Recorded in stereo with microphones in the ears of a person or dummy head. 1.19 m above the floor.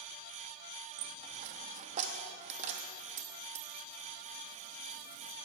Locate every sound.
1.0 s a dropped coin: 40° right (ahead or behind), 0.8 m